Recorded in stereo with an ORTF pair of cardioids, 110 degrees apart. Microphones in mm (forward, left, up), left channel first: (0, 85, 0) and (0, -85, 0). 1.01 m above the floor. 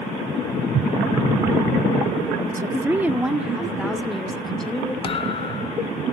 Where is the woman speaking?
20° right, 1.4 m; by 4.9 s 5° left, 3.5 m.